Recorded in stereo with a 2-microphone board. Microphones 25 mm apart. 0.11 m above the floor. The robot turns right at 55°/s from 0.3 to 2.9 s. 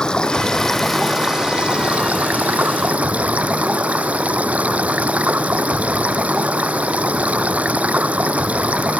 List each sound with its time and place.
0.0 s running water: 150° left; by 9.0 s 70° right